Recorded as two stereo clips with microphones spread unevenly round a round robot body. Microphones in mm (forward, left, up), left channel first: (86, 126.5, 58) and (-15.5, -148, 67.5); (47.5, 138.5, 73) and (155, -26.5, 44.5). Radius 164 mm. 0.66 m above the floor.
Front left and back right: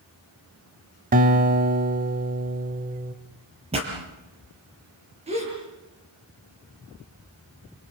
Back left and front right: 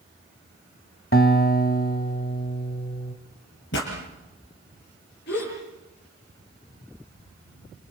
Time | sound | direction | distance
1.1 | a guitar | 175° right | 0.9 m
3.7 | a pop | 175° left | 4.5 m
5.3 | a gasp | straight behind | 8 m